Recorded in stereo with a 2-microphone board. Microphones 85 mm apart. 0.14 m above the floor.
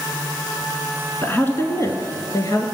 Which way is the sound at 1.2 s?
20° left (ahead or behind).